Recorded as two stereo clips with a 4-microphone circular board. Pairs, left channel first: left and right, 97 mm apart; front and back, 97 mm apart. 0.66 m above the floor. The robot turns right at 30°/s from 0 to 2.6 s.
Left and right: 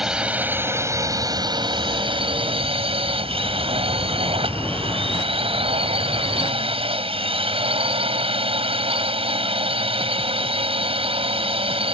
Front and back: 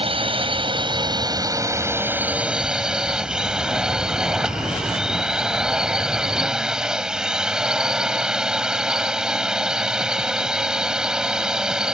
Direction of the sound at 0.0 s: 175° right.